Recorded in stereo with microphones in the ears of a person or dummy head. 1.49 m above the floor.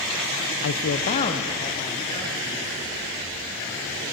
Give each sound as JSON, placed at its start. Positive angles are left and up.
{"t": 0.6, "sound": "a man speaking", "side_deg": 75, "distance_m": 0.6}